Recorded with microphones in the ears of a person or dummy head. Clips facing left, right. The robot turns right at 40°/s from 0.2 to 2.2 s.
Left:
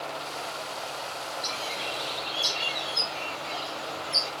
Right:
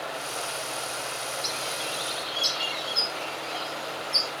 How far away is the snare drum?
No snare drum in this recording.